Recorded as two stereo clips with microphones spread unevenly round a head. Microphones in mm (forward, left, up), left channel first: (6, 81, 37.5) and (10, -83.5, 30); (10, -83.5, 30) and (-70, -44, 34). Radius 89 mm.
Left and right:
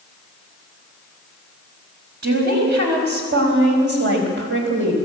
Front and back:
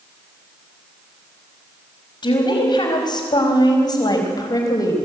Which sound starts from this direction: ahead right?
A woman speaking, at 2.2 s.